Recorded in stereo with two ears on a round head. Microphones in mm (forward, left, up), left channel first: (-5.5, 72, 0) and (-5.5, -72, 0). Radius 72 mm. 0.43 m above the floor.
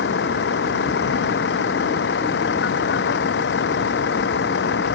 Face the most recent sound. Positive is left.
turn(degrees=80)